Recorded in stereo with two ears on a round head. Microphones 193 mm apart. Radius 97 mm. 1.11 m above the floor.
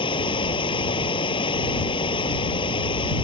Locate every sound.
0.0 s running water: 25° left (ahead or behind)